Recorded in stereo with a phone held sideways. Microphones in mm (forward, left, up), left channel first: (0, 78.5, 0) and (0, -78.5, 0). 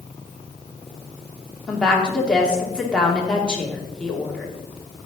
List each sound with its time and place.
1.7 s a woman speaking: 5° left (ahead or behind), 2.5 m